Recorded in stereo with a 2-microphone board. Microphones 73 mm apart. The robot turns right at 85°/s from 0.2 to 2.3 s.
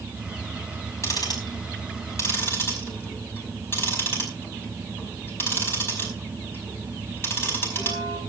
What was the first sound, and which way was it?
Ticking, 40° left (ahead or behind).